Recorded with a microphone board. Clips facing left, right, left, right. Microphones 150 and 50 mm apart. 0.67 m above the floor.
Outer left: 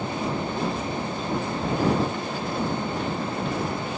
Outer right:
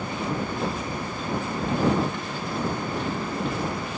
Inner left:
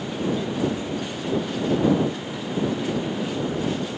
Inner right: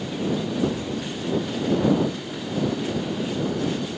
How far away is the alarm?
I don't hear an alarm.